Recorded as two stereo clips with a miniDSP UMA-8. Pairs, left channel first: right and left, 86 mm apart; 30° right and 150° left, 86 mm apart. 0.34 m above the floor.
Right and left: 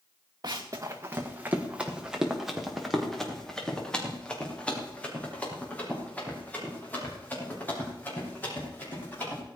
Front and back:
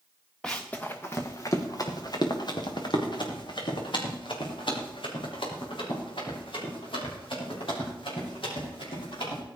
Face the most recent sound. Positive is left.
turn(degrees=-25)